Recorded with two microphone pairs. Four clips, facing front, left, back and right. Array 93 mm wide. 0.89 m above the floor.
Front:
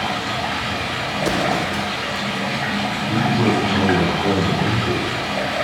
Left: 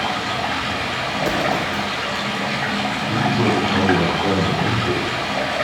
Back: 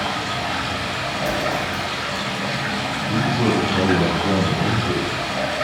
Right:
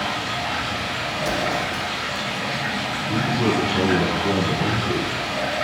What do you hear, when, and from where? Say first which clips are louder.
0.0 s running water: left 3 dB, front 1 dB; 70° left, 2 m
1.2 s an explosion: left 3 dB, front 3 dB; 30° left, 0.7 m
3.1 s a man speaking: left 2 dB, front 1 dB; 65° left, 3.5 m